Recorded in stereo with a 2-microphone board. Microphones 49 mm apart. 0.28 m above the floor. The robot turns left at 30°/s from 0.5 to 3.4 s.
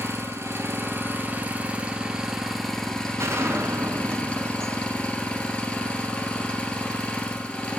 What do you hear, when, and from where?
0.0 s an engine running: 120° right, 1.8 m; by 7.8 s 155° left, 1.8 m
3.2 s a gunshot: 70° right (ahead or behind), 1.4 m